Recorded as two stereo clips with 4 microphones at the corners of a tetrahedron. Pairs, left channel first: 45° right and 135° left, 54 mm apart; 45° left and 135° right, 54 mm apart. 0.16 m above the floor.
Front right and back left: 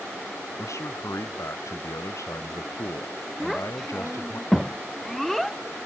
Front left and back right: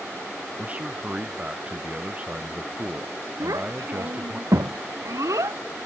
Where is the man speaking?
70° right.